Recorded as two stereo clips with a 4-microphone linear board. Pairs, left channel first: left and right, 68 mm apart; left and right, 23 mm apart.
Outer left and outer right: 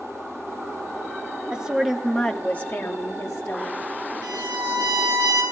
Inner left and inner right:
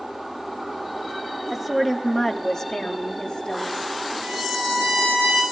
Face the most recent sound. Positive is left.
turn(degrees=-65)  # may be behind; listen again after turning